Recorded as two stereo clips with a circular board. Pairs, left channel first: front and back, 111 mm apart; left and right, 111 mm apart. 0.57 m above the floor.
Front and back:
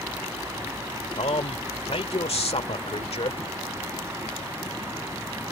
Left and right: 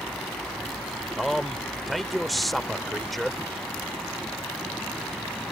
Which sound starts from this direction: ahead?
A man speaking, at 1.2 s.